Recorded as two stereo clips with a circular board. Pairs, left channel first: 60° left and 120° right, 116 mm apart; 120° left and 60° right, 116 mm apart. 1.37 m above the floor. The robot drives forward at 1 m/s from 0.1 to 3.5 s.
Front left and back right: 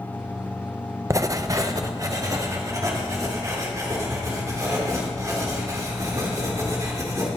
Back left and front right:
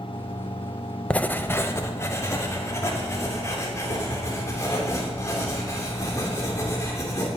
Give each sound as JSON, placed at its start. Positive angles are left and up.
{"t": 1.1, "sound": "writing", "azimuth_deg": -165, "distance_m": 0.5}